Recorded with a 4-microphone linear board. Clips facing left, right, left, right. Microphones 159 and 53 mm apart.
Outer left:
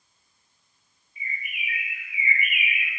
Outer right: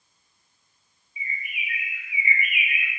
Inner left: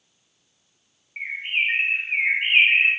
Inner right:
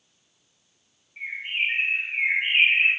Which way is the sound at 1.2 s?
60° left (ahead or behind).